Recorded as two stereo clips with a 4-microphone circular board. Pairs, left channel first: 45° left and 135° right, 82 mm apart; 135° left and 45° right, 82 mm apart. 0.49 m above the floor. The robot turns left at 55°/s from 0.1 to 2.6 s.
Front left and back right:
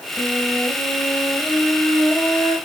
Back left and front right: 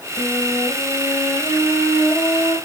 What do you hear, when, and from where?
0.2 s a flute: 175° right, 3.5 m; by 2.6 s 55° left, 3.5 m